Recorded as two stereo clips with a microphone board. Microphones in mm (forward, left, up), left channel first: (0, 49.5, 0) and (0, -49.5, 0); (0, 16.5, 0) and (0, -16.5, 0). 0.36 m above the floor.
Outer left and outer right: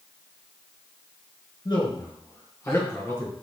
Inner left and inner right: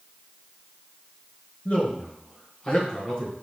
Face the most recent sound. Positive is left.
turn(degrees=20)  # may be behind; listen again after turning